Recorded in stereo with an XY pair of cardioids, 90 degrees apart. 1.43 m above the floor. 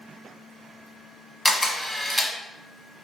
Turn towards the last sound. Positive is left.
turn(degrees=5)